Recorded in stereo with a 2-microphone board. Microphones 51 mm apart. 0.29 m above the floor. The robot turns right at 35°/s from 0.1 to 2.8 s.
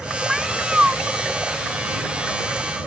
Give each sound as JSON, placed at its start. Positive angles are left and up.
{"t": 0.3, "sound": "a cat meowing", "side_deg": 0}